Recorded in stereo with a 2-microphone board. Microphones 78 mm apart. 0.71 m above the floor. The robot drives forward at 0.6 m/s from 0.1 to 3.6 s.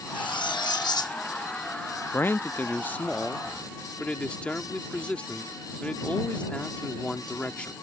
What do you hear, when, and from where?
0.1 s cutlery clinking: 75° left (ahead or behind); by 1.2 s 50° left (ahead or behind)
2.1 s a man speaking: 30° left (ahead or behind); by 7.7 s 15° left (ahead or behind)